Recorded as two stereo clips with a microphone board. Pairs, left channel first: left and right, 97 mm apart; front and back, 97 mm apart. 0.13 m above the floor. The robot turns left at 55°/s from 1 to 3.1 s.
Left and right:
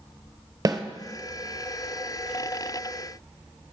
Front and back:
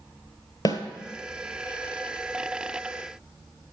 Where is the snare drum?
40° right, 1.0 m.